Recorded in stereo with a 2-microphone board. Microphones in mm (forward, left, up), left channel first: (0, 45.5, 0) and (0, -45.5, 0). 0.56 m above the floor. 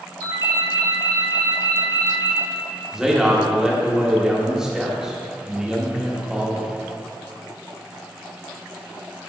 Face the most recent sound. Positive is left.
turn(degrees=-5)  # may be behind; listen again after turning